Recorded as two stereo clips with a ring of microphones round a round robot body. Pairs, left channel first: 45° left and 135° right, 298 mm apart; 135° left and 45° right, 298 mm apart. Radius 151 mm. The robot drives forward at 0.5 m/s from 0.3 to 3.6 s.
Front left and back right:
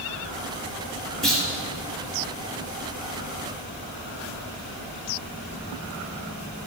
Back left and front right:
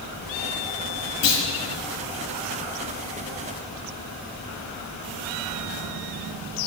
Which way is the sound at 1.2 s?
135° left.